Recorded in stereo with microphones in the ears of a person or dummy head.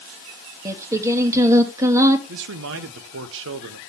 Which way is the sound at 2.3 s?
65° right (ahead or behind).